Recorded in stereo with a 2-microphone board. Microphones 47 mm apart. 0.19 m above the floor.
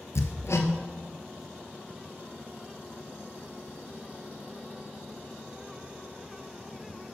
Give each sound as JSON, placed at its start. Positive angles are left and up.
{"t": 0.1, "sound": "hammering", "side_deg": 80, "distance_m": 0.9}